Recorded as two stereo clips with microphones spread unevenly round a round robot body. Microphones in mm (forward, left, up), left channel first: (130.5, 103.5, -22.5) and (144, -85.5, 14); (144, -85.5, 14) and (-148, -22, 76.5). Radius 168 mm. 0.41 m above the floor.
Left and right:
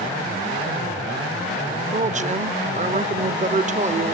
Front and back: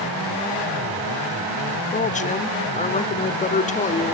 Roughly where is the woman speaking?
Ahead right.